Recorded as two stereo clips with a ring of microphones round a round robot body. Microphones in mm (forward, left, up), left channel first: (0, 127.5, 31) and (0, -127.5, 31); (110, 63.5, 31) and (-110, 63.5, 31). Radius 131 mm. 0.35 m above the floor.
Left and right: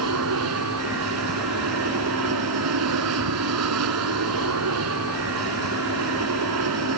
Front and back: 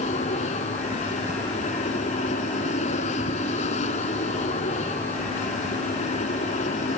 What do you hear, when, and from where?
0.0 s an aircraft: 65° right